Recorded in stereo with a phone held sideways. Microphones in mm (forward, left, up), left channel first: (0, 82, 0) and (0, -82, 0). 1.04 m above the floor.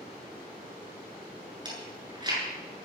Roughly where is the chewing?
Right.